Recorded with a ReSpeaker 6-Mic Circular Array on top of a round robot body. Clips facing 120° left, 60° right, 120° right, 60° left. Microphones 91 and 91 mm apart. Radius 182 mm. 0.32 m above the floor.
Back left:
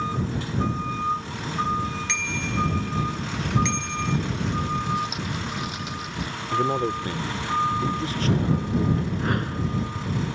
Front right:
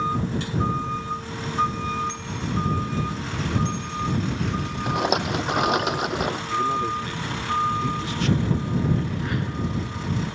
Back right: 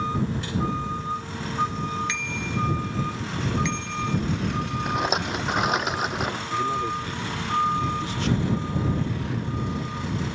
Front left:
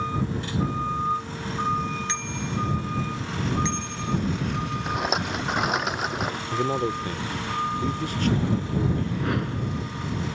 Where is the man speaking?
80° left.